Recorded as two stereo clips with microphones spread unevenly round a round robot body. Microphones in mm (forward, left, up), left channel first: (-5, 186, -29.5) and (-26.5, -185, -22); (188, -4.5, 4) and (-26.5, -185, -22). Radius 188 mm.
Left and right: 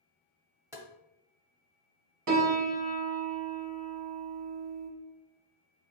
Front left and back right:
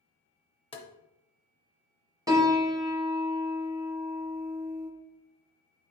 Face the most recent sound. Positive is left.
turn(degrees=-60)